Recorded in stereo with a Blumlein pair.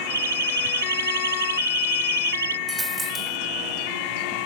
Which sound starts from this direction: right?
A siren, at 0.1 s.